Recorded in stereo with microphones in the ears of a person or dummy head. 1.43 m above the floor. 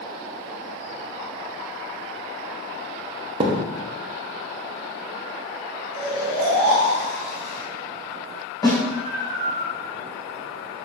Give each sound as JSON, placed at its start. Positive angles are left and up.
{"t": 3.4, "sound": "a thud", "side_deg": -25, "distance_m": 1.1}
{"t": 5.9, "sound": "snoring", "side_deg": -25, "distance_m": 3.0}
{"t": 8.6, "sound": "a snare drum", "side_deg": 25, "distance_m": 4.0}